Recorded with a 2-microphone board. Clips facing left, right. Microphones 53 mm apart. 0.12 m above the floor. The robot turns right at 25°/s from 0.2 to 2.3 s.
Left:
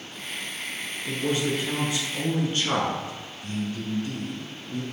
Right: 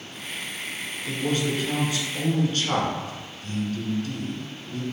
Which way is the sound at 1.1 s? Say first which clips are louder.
Even; 20° left (ahead or behind).